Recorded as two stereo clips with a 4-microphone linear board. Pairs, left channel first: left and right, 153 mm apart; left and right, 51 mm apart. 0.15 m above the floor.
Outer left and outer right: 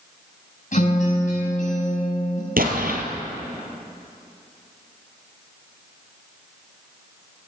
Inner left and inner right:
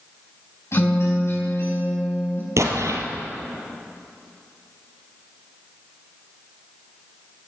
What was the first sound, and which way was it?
A guitar, 55° left (ahead or behind).